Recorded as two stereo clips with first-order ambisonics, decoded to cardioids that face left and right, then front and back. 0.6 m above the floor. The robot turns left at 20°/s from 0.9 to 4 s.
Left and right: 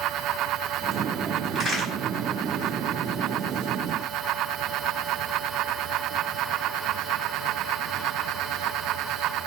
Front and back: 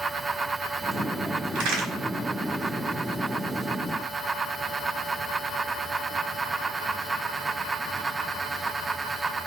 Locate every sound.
1.6 s a crack: 175° right, 2 m; by 1.9 s 175° left, 2 m